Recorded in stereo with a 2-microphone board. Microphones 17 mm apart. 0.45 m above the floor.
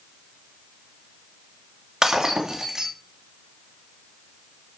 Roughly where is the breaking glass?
Right.